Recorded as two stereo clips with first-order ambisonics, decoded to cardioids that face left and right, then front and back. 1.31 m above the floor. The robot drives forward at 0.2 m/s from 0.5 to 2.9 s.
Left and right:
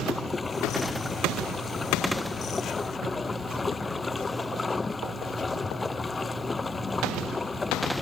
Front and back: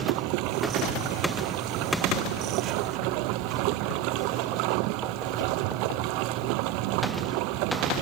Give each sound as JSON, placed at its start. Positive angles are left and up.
{"t": 0.0, "sound": "running water", "azimuth_deg": 170}